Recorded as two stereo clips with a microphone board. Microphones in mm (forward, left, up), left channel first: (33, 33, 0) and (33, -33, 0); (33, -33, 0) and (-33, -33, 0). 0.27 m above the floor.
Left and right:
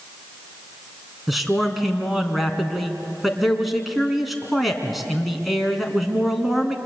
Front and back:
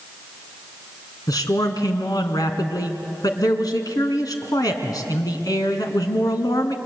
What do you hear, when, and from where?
1.3 s a man speaking: straight ahead, 2.5 m